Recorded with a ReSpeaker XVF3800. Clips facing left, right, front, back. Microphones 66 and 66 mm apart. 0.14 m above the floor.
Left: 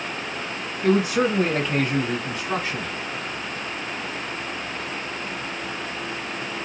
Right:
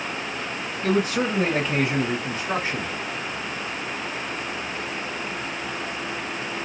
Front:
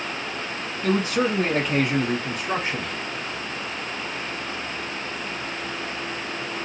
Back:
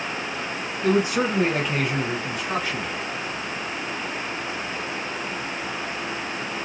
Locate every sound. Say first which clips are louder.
0.8 s a man speaking: left 3 dB, back 1 dB; 135° left, 1.4 m; by 2.9 s 60° right, 1.6 m